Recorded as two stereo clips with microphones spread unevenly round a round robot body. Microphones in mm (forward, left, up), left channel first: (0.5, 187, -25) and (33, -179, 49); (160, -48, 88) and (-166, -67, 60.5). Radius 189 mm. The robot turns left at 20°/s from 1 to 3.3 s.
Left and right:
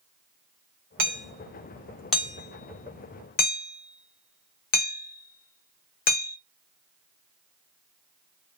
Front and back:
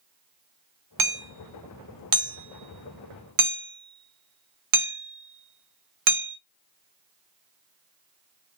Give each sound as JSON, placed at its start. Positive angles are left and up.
{"t": 1.0, "sound": "hammering", "azimuth_deg": -155, "distance_m": 1.0}